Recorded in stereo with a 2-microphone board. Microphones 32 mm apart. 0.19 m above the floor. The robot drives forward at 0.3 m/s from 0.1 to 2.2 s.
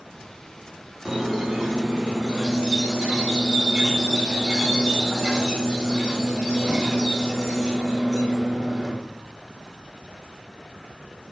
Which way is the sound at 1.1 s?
10° right (ahead or behind).